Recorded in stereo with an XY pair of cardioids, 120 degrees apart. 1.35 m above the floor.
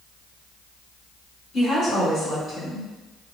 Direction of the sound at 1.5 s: 55° left.